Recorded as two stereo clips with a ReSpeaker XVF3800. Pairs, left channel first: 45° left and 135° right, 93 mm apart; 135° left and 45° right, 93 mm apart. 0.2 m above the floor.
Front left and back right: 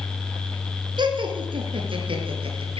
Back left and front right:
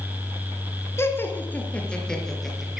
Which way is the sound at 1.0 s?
165° right.